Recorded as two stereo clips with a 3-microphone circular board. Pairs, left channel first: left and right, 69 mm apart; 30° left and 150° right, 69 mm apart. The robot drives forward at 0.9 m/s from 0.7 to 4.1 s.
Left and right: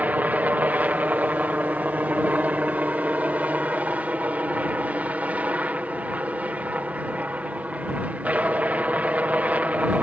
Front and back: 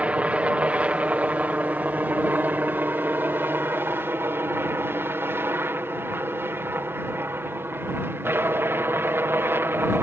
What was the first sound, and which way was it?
A helicopter, 110° right.